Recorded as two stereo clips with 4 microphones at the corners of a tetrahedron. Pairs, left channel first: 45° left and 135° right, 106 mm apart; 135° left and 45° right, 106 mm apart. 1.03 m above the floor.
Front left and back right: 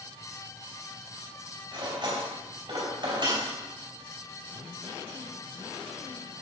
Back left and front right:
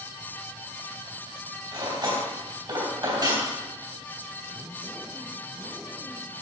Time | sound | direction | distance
1.7 | cutlery clinking | 90° right | 3.5 m